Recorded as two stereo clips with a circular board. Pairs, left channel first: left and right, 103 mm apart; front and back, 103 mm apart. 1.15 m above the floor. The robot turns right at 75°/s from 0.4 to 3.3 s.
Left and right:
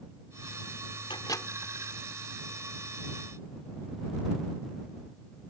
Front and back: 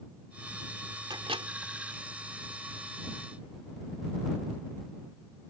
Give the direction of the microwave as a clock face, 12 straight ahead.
8 o'clock.